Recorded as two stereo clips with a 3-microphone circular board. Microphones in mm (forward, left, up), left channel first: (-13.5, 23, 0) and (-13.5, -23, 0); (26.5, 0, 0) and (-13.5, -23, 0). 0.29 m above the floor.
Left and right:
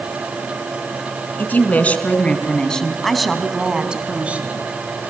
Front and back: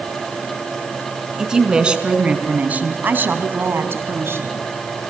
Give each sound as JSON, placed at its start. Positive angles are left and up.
{"t": 1.4, "sound": "a woman speaking", "azimuth_deg": 135, "distance_m": 4.0}